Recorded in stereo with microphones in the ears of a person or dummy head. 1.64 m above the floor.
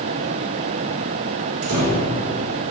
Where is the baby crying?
No baby crying in this recording.